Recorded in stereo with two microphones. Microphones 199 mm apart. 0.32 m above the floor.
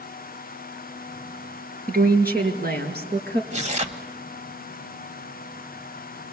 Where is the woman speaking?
50° right (ahead or behind), 4 m; by 3.4 s 60° right (ahead or behind), 4 m.